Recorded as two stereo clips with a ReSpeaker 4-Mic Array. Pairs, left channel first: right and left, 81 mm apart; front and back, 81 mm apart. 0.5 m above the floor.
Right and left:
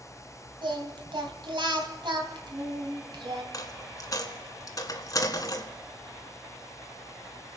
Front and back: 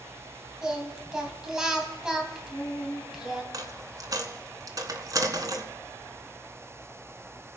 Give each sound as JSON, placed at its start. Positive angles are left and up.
{"t": 0.6, "sound": "singing", "azimuth_deg": 100, "distance_m": 2.0}
{"t": 3.5, "sound": "a dropped coin", "azimuth_deg": -135, "distance_m": 1.5}